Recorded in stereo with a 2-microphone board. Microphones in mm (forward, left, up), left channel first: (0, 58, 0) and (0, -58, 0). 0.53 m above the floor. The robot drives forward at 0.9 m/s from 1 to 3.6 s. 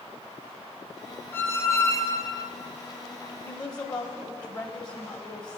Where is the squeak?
20° left (ahead or behind), 1.6 m; by 2.5 s 35° left (ahead or behind), 0.9 m.